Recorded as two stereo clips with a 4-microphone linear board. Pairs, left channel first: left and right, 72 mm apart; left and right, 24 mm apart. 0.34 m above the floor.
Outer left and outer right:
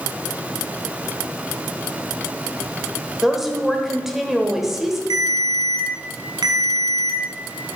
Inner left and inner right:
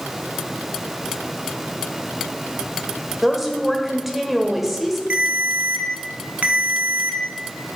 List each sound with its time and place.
3.2 s a woman speaking: 5° right (ahead or behind), 1.2 m
5.1 s a ringtone: 80° right, 1.5 m